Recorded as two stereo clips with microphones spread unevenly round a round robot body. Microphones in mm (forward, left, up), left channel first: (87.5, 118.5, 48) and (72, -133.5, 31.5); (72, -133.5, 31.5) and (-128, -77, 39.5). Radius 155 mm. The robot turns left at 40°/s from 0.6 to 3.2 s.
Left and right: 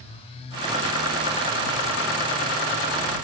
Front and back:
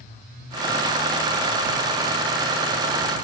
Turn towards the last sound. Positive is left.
No sound to turn to.